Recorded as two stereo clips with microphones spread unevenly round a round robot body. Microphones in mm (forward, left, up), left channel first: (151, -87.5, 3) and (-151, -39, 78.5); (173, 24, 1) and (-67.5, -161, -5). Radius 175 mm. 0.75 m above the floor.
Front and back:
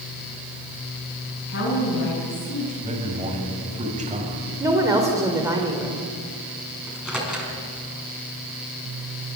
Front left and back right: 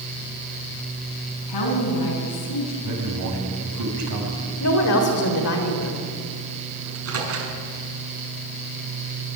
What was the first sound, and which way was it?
A woman speaking, 50° left.